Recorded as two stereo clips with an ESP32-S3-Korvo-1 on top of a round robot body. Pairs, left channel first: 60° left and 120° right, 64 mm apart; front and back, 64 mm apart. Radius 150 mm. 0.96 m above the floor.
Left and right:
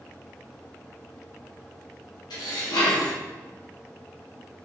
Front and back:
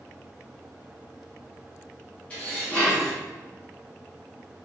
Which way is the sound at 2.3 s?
70° left.